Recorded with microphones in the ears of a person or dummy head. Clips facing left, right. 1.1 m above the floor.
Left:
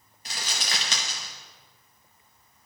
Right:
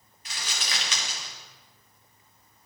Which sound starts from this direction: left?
Crumpling, at 0.2 s.